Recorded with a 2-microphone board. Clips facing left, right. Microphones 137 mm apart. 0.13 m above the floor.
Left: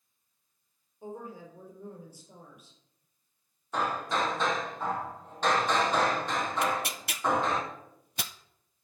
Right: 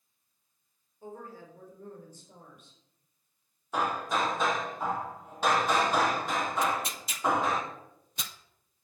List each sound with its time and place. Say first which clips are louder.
1.0 s a woman speaking: left 3 dB; 20° left (ahead or behind), 3.5 m; by 2.8 s 5° left (ahead or behind), 3.5 m
3.7 s hammering: even; 10° right (ahead or behind), 2.5 m
6.6 s tearing paper: even; 75° left (ahead or behind), 0.7 m